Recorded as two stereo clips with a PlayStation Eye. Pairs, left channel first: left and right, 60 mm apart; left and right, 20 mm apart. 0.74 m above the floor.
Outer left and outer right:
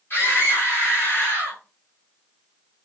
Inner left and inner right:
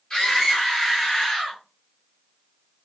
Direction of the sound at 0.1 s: 45° left (ahead or behind).